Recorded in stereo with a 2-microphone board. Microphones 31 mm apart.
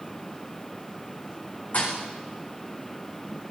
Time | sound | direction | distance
1.7 | a thud | 60° left (ahead or behind) | 5.5 m